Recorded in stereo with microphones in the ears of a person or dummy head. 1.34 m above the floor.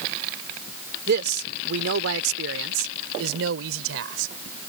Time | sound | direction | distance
1.1 | a man speaking | 60° right (ahead or behind) | ?